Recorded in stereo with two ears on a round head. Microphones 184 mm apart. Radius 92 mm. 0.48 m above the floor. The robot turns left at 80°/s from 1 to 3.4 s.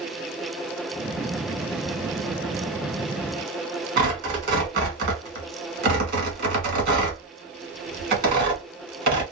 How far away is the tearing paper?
About 1.7 m.